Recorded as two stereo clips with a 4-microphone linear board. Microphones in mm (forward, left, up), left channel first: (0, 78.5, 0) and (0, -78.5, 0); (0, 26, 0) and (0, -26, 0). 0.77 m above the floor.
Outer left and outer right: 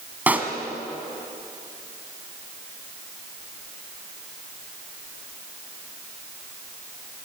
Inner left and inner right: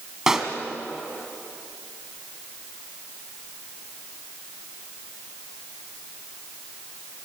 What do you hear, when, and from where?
0.3 s a pop: 10° right (ahead or behind), 2.5 m